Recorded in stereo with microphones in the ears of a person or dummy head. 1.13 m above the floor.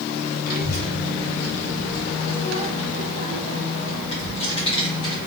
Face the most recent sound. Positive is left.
turn(degrees=30)  # may be behind; listen again after turning